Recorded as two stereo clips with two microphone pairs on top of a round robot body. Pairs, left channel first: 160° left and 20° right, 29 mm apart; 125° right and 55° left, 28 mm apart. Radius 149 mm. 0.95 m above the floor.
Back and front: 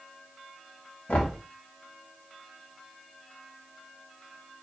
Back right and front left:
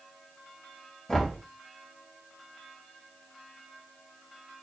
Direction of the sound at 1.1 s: 155° left.